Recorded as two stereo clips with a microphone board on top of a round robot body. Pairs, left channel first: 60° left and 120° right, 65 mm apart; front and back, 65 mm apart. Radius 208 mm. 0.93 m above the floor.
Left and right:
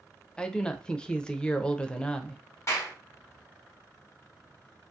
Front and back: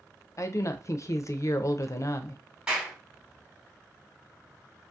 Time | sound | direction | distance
0.4 | a woman speaking | 10° right | 0.6 m
2.7 | a clap | 105° left | 1.2 m